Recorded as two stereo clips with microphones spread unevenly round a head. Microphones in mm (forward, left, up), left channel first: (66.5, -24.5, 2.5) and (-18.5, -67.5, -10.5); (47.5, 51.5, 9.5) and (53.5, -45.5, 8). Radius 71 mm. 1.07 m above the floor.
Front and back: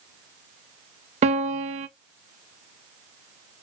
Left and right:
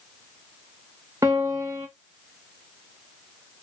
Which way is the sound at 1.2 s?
160° right.